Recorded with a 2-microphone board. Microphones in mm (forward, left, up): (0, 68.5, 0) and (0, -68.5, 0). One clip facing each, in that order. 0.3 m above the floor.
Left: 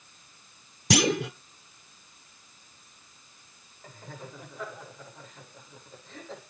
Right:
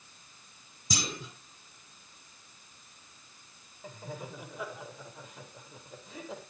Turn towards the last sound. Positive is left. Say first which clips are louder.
# right 3 dB
turn(degrees=-10)  # may be behind; listen again after turning